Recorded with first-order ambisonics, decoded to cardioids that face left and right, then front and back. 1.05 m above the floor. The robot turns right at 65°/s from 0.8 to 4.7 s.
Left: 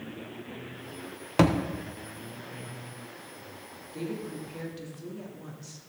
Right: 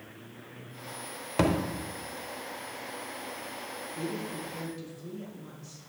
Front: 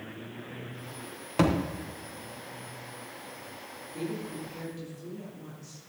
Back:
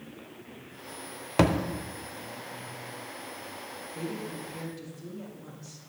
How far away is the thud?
About 0.7 m.